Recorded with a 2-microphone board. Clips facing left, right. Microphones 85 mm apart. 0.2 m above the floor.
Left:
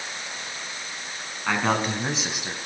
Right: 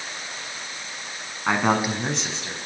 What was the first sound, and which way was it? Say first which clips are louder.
A man speaking: right 2 dB; 20° right (ahead or behind).